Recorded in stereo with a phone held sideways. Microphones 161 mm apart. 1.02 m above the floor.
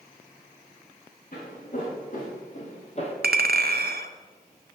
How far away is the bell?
I don't hear a bell.